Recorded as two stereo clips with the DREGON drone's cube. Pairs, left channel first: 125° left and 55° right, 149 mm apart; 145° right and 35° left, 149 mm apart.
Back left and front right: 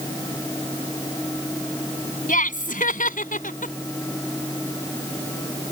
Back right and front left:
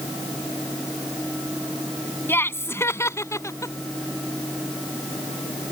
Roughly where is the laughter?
Behind left.